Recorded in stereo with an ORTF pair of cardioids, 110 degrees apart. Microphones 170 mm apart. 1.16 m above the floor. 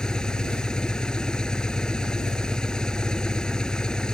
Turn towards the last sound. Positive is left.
turn(degrees=5)